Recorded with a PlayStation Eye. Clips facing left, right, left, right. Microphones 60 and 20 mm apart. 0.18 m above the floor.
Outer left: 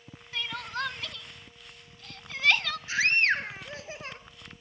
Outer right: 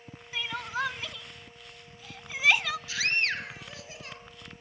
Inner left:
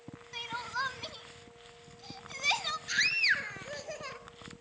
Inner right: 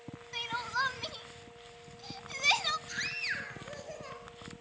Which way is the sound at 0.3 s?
10° right (ahead or behind).